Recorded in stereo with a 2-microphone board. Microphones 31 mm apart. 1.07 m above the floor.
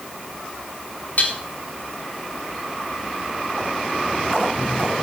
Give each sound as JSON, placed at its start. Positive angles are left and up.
{"t": 1.2, "sound": "dishes clattering", "side_deg": 55, "distance_m": 3.0}